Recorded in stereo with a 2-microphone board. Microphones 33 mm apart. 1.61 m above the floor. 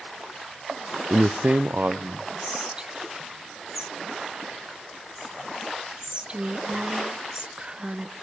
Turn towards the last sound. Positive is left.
turn(degrees=-25)  # may be behind; listen again after turning